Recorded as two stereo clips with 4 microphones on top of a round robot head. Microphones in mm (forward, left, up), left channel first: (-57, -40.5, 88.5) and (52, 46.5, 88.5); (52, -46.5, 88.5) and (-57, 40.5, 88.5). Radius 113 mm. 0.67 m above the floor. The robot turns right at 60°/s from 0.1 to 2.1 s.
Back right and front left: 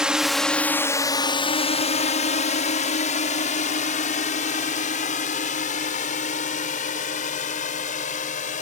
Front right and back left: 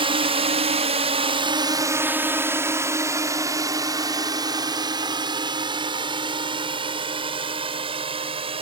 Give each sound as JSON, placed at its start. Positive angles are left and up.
{"t": 0.0, "sound": "a drone", "azimuth_deg": 120}